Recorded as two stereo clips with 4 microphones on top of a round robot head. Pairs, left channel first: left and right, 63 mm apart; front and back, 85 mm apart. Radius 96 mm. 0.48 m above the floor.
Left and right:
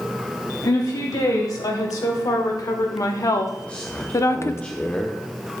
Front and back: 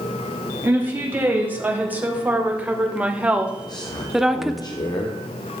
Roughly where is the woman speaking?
Behind left.